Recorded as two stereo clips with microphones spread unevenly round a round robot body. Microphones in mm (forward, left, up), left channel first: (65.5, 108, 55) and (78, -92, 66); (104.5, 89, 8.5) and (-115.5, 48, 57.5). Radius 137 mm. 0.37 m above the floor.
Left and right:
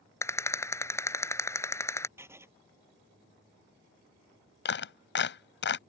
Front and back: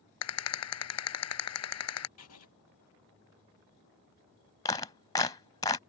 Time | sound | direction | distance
0.2 | a rattle | 15° left | ?
2.2 | writing | 10° right | ?
4.7 | a clap | 80° left | ?